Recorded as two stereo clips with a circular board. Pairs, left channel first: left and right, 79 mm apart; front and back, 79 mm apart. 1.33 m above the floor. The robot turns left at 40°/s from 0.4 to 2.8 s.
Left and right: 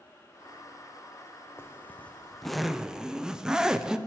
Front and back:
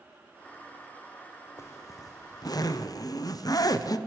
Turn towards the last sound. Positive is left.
turn(degrees=-10)